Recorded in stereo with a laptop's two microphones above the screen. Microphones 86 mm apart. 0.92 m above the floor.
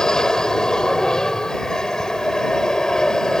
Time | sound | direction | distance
0.0 | an aircraft | 5° left (ahead or behind) | ?